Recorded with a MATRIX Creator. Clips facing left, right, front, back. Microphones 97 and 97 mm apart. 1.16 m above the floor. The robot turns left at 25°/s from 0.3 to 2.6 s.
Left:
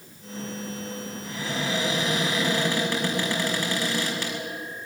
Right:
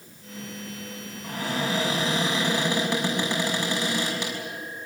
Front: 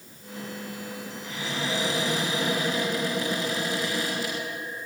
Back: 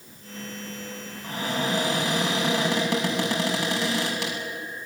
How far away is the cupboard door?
About 6 m.